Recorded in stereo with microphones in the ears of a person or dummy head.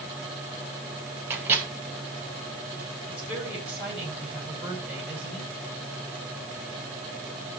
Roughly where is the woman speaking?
Centre.